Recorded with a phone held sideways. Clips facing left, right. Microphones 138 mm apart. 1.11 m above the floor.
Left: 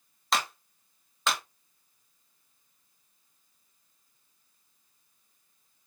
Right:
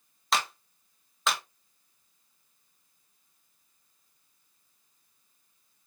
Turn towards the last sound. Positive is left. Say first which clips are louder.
# even
turn(degrees=0)  # may be behind; listen again after turning